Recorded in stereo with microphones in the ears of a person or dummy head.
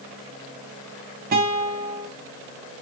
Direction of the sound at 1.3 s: 45° right (ahead or behind).